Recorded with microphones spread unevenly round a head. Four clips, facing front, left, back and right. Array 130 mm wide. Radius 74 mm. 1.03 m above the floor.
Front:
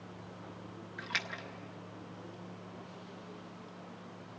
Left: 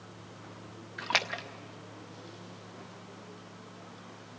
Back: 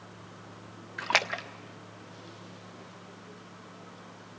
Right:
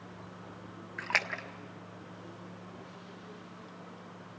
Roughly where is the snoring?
I don't hear snoring.